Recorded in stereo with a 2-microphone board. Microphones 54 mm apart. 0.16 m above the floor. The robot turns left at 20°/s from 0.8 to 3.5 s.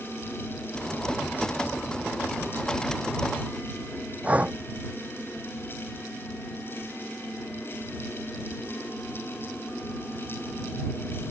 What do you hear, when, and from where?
4.2 s breathing: 25° right (ahead or behind)